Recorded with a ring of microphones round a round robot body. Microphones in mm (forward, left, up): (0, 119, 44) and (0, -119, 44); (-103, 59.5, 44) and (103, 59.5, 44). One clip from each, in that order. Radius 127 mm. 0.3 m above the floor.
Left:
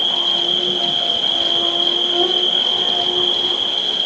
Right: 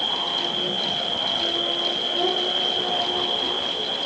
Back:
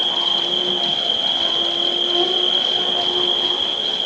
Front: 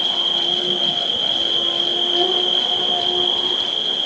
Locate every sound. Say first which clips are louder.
0.0 s an insect: left 7 dB, even; 95° left, 5 m